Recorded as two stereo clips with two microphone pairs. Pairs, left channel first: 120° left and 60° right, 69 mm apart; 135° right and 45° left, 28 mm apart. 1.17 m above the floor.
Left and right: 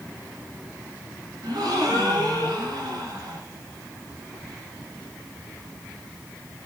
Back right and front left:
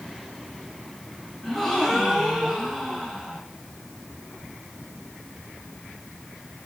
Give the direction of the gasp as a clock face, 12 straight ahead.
2 o'clock.